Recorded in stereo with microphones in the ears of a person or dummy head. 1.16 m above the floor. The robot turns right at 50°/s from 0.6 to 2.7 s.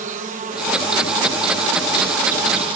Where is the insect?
140° right, 1.0 m; by 2.8 s 35° right, 1.0 m.